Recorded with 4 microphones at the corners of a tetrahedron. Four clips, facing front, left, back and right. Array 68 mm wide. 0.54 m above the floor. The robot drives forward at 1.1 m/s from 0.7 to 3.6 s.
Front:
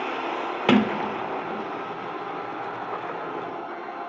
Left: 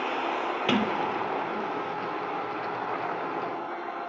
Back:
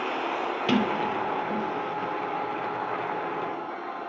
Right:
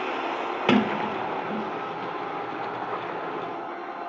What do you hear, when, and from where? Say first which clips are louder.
0.7 s a sliding door: right 5 dB, front 5 dB; 35° right, 0.7 m; by 1.7 s 145° right, 0.7 m